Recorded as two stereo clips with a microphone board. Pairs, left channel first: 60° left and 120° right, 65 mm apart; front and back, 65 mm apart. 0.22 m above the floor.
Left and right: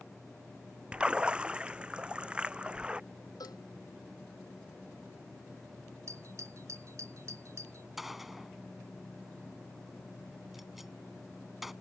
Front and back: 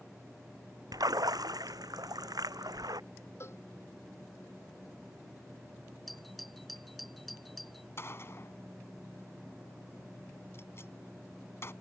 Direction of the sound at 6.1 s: 85° right.